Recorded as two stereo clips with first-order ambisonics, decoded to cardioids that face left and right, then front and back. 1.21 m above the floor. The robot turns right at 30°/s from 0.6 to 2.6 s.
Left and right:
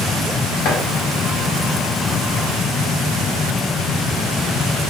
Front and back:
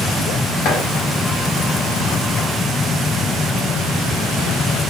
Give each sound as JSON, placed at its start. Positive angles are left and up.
{"t": 0.7, "sound": "chopping", "azimuth_deg": 50, "distance_m": 1.1}